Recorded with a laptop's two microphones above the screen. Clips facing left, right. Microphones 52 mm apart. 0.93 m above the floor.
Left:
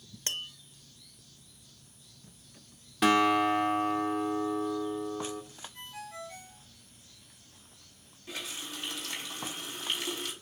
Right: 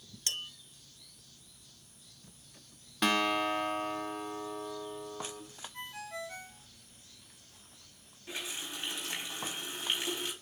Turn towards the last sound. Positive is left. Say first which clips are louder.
# even
turn(degrees=-20)  # may be behind; listen again after turning